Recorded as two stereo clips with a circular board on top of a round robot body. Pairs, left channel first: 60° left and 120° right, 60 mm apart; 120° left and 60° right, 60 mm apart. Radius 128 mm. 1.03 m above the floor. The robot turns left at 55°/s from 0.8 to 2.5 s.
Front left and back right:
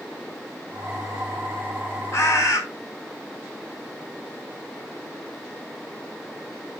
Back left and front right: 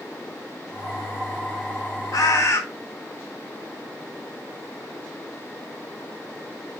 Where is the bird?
100° left, 2.5 m; by 2.6 s 80° left, 2.5 m.